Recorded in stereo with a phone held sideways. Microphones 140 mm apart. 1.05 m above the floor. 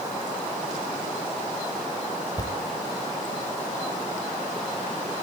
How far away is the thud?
About 2 m.